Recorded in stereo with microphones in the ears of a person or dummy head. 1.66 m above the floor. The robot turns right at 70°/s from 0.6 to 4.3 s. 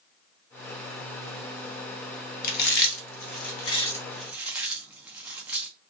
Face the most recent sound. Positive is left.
turn(degrees=-15)  # may be behind; listen again after turning